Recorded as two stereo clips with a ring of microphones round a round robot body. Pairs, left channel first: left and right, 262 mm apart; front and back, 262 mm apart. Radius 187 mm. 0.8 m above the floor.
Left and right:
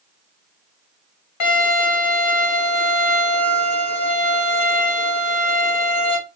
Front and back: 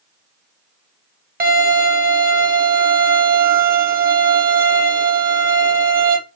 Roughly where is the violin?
Behind left.